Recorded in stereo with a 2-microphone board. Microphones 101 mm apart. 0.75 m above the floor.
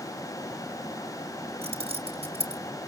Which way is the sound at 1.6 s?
80° right.